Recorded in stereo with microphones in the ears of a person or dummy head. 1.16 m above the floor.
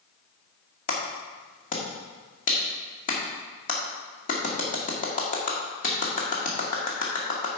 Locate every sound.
0.9 s a clap: 45° left (ahead or behind), 1.9 m